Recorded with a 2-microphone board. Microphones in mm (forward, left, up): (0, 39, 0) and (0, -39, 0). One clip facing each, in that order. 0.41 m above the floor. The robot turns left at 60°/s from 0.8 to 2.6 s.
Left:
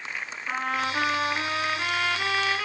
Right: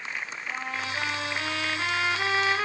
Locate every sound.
0.5 s a trumpet: 70° left, 1.6 m; by 2.7 s 40° right, 1.6 m